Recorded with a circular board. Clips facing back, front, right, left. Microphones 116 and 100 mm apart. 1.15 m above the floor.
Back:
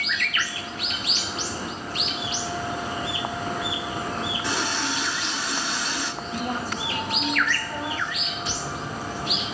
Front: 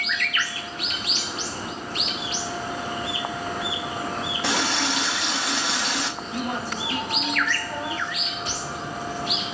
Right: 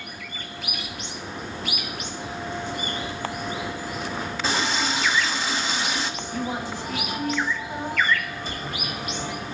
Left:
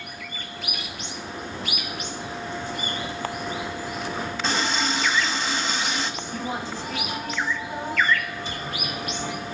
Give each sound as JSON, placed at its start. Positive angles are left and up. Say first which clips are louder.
{"t": 4.4, "sound": "a running tap", "louder": "front 5 dB, even", "azimuth_deg": 0, "distance_m": 1.1}
{"t": 6.2, "sound": "a woman speaking", "louder": "even, right 1 dB", "azimuth_deg": -10, "distance_m": 4.0}
{"t": 8.4, "sound": "a cupboard door", "louder": "back 2 dB, even", "azimuth_deg": -40, "distance_m": 2.0}